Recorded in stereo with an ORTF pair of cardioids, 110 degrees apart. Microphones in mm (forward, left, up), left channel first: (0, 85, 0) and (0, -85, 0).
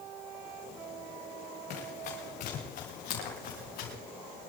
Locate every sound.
1.7 s running footsteps: 60° left, 6 m; by 4.0 s 70° left, 7 m